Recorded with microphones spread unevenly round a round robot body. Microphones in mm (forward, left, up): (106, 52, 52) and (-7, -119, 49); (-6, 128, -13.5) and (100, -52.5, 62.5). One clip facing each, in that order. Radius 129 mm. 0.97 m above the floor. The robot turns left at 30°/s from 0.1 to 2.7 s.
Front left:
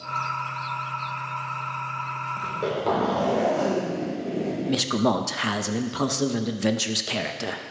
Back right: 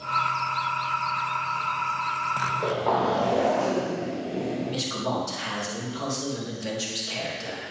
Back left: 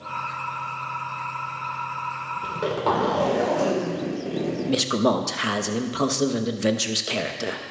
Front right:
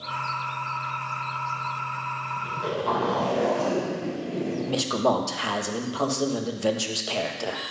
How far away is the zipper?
About 3 m.